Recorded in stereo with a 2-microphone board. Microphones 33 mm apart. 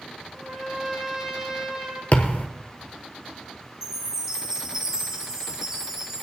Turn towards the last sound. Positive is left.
turn(degrees=-15)  # may be behind; listen again after turning